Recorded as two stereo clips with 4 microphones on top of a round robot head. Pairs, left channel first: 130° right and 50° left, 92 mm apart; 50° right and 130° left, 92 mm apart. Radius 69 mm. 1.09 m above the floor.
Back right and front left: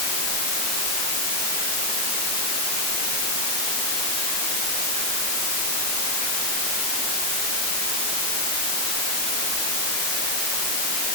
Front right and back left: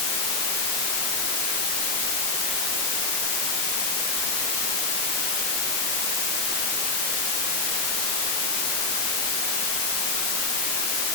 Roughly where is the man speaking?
No man speaking in this recording.